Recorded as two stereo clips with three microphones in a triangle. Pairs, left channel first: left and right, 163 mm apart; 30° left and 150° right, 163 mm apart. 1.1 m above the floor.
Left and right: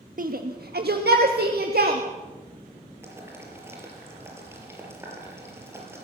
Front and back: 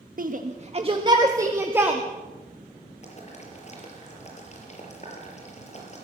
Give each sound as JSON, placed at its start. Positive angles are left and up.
{"t": 0.2, "sound": "a shout", "azimuth_deg": -120, "distance_m": 1.5}
{"t": 3.0, "sound": "boiling", "azimuth_deg": -15, "distance_m": 5.0}